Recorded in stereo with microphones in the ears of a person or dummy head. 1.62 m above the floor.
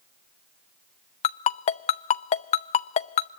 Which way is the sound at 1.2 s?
40° left (ahead or behind).